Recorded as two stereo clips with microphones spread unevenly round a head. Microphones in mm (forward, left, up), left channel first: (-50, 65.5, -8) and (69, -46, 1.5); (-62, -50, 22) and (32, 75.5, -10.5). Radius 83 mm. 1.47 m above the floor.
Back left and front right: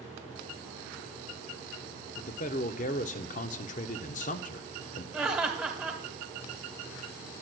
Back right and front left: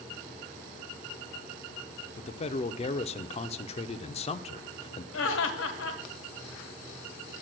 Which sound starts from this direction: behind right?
Laughter, at 5.1 s.